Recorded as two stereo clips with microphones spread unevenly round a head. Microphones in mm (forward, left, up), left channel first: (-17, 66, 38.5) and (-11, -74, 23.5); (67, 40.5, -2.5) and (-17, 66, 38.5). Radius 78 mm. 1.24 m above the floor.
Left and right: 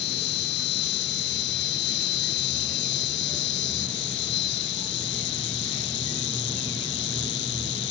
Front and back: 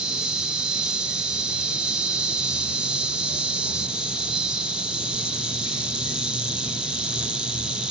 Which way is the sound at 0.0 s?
90° left.